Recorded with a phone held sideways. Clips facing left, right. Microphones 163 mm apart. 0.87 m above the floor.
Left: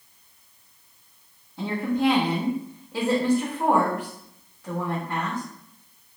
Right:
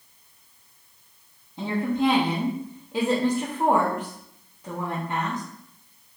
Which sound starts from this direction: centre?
A woman speaking, at 1.6 s.